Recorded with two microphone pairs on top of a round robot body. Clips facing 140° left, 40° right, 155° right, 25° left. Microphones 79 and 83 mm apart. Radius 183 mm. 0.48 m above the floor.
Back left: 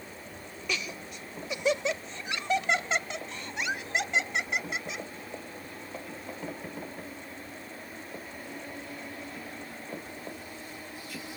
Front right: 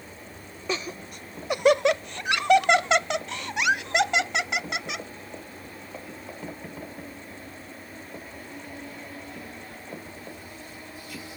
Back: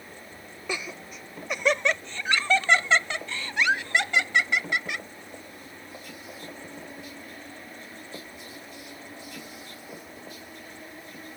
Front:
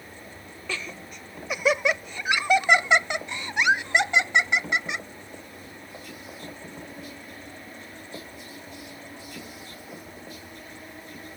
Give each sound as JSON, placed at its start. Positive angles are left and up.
{"t": 0.7, "sound": "laughter", "azimuth_deg": -85}